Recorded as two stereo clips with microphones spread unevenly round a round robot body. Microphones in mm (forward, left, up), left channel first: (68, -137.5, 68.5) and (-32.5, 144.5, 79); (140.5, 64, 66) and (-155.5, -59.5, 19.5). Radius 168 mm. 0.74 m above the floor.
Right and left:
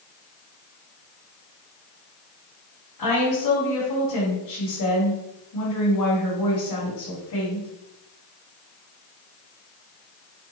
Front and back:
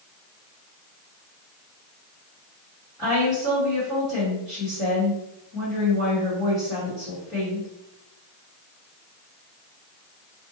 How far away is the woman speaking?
About 1.6 m.